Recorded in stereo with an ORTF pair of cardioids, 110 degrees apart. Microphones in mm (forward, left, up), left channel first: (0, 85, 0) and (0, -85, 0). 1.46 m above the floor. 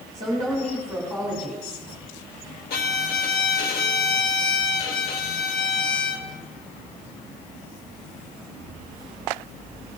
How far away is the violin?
About 1.3 m.